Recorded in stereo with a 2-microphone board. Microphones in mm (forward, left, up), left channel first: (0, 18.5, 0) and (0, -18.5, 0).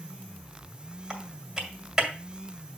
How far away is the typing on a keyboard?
About 1.9 m.